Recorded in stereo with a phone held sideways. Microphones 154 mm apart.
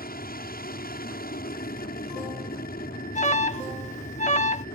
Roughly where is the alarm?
Left.